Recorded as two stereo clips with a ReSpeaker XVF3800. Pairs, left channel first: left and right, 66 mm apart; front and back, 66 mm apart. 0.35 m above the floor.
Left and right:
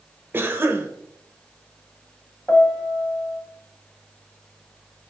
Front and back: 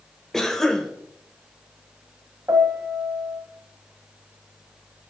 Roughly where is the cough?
Right.